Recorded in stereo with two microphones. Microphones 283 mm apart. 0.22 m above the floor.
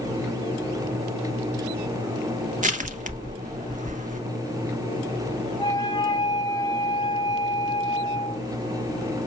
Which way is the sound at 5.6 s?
15° left (ahead or behind).